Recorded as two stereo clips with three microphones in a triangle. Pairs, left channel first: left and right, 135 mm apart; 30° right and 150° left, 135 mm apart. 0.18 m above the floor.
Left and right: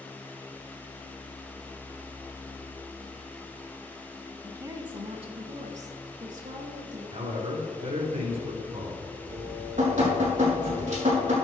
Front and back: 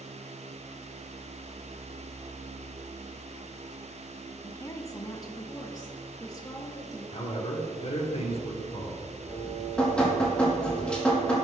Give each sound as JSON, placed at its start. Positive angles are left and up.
{"t": 4.4, "sound": "a woman speaking", "azimuth_deg": -45, "distance_m": 1.1}
{"t": 7.1, "sound": "a man speaking", "azimuth_deg": -65, "distance_m": 4.0}
{"t": 9.3, "sound": "dripping", "azimuth_deg": -110, "distance_m": 4.5}